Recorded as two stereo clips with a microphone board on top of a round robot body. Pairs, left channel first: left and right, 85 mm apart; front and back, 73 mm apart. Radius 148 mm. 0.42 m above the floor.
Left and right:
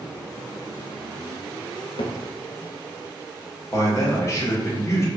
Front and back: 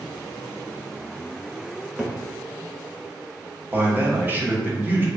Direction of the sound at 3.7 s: 130° left.